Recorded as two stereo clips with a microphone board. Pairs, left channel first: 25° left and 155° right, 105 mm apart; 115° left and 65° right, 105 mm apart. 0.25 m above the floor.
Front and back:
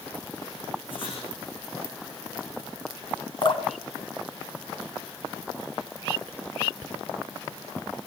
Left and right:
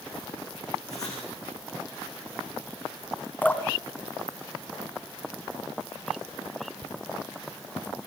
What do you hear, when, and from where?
0.9 s writing: 55° left, 9.5 m
3.4 s dripping: 40° left, 1.6 m